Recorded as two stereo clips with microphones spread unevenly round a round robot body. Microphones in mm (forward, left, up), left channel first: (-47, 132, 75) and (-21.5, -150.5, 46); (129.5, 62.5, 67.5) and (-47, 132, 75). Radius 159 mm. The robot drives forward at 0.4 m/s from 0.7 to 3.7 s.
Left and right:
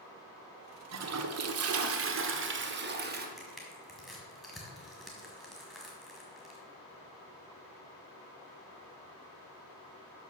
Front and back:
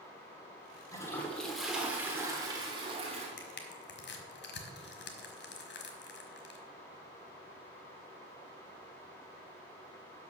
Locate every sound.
0.9 s a toilet flushing: 95° right, 1.0 m; by 3.3 s 140° right, 1.4 m
3.4 s crushing: 5° left, 1.7 m